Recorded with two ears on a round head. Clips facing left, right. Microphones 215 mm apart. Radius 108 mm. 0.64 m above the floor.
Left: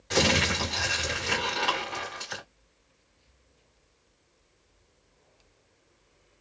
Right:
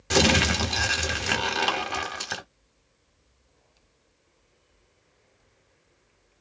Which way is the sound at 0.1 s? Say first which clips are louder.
Right 4 dB; 65° right (ahead or behind).